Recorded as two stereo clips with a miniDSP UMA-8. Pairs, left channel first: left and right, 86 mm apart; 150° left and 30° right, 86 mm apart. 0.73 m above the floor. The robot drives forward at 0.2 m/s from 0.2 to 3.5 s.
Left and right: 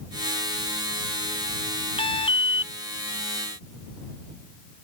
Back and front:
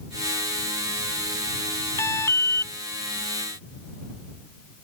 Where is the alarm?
95° left.